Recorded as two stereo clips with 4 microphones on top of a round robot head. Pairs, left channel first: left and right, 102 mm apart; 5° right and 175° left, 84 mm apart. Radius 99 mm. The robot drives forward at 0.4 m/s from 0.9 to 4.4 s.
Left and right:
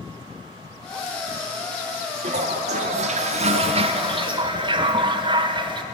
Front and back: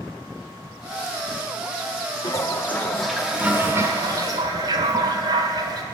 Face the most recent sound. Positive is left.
turn(degrees=-130)